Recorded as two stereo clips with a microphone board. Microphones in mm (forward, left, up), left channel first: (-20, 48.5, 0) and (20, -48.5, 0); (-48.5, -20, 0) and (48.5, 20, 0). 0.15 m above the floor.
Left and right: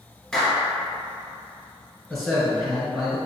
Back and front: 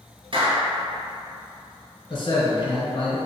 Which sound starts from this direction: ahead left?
A clap, at 0.3 s.